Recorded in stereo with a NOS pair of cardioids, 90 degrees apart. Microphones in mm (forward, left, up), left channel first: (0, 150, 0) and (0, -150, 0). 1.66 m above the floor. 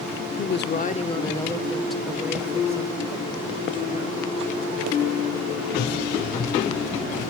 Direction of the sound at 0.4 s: 45° left.